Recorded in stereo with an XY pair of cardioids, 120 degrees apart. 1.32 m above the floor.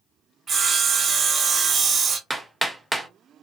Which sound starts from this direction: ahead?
Hammering, at 2.3 s.